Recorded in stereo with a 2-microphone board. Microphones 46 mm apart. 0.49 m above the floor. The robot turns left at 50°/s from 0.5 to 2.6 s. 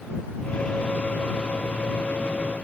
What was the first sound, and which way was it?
Only background noise.